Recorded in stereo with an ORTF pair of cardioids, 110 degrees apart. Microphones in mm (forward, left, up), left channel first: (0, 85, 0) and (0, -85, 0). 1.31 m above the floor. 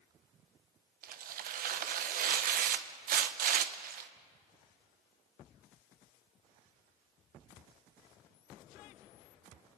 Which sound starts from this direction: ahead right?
Tearing paper, at 1.0 s.